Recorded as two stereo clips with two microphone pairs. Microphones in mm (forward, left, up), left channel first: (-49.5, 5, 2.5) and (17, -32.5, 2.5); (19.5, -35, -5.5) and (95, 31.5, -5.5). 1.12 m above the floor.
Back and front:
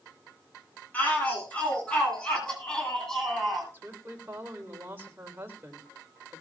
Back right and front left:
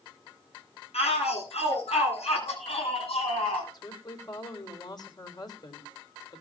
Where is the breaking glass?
I don't hear breaking glass.